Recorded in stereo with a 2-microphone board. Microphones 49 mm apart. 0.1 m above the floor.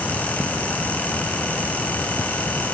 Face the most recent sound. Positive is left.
No sound to turn to.